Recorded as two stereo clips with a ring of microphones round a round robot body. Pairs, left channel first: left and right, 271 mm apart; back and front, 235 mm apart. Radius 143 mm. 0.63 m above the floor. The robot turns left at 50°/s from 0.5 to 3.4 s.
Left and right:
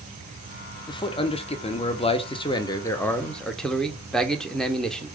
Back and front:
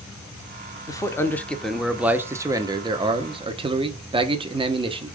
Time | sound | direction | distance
0.9 | a man speaking | 135° left | 0.6 m